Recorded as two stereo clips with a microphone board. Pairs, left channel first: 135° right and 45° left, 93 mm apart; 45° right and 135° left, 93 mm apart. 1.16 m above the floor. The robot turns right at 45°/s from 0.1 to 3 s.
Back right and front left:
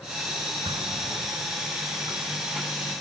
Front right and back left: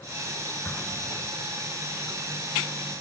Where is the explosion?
25° left; by 1.8 s 75° left.